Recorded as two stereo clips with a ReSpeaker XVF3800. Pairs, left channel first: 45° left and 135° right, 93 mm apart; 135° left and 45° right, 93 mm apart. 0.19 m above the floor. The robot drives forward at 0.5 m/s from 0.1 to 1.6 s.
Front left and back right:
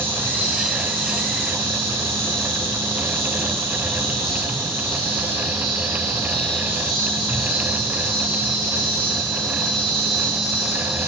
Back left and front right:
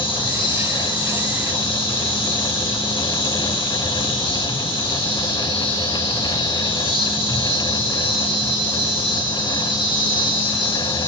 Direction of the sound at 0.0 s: 155° left.